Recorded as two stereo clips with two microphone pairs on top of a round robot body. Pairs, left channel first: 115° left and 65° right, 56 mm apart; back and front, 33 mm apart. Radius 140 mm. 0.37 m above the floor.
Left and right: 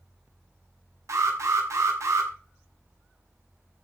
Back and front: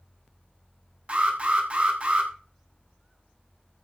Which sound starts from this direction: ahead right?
An alarm, at 1.1 s.